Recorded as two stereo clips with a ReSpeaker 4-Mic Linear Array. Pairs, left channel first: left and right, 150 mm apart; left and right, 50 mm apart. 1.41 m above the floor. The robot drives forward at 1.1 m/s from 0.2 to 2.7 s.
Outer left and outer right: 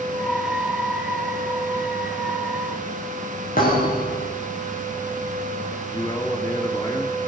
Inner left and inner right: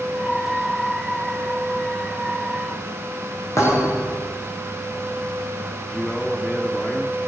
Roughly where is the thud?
Left.